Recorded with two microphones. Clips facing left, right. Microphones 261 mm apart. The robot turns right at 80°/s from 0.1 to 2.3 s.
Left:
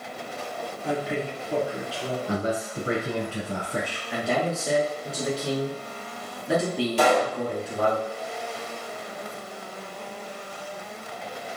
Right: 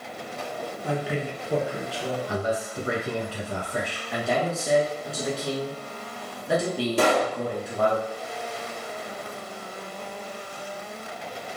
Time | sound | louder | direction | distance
0.8 | a man speaking | left 1 dB | centre (ahead or behind) | 1.1 m
2.3 | a man speaking | left 1 dB | 30° left (ahead or behind) | 1.2 m
4.1 | a man speaking | even | centre (ahead or behind) | 1.2 m
7.0 | a pop | left 1 dB | 55° right (ahead or behind) | 1.6 m